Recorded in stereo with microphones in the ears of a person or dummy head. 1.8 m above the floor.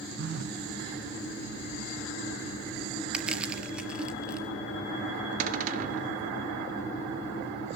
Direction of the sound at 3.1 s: 5° right (ahead or behind).